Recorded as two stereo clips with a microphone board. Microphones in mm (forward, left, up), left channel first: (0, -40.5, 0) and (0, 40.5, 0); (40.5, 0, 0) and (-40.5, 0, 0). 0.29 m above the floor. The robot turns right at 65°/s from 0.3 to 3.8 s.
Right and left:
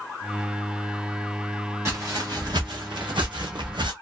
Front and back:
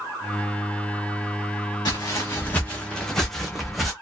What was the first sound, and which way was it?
Footsteps, 40° left.